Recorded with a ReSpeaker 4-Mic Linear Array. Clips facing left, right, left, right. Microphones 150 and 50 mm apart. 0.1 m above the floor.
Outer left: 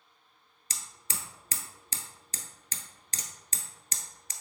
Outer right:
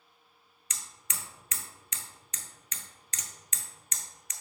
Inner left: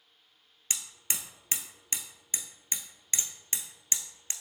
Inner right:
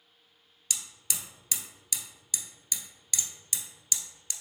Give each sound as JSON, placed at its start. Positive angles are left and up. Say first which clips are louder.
{"t": 0.7, "sound": "hammering", "louder": "outer left 2 dB, inner left 1 dB", "side_deg": 35, "distance_m": 0.8}